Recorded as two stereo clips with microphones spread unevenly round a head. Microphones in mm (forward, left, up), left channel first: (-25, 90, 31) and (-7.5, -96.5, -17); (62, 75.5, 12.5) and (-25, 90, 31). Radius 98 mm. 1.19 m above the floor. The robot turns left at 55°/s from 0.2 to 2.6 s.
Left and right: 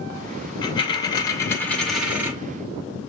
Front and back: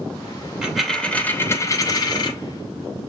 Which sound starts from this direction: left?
A dropped coin, at 0.6 s.